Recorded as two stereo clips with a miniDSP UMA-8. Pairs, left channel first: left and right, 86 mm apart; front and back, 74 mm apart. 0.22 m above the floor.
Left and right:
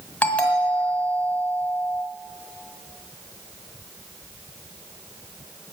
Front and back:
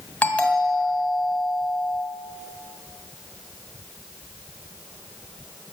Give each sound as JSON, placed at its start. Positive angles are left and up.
{"t": 0.2, "sound": "a doorbell", "azimuth_deg": 40, "distance_m": 1.9}